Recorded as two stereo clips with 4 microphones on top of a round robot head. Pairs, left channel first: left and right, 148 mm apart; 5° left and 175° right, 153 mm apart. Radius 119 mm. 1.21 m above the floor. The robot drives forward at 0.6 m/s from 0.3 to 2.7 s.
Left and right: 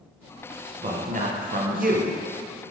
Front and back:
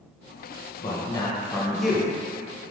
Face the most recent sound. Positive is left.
turn(degrees=-110)